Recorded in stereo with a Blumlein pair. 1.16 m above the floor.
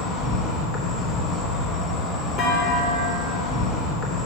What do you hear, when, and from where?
0.0 s an insect: 20° left, 0.9 m
2.4 s a clunk: 35° left, 1.2 m